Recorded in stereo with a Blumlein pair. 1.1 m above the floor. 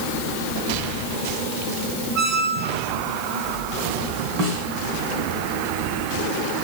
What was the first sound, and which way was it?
A squeak, 30° right.